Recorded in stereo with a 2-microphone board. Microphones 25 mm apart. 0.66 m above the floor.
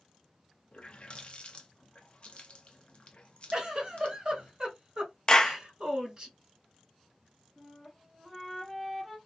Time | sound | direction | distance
0.7 | a running tap | 40° left (ahead or behind) | 0.5 m
3.5 | a giggle | 40° right (ahead or behind) | 1.6 m
5.3 | a clap | 25° left (ahead or behind) | 0.5 m
7.6 | a flute | 10° right (ahead or behind) | 0.8 m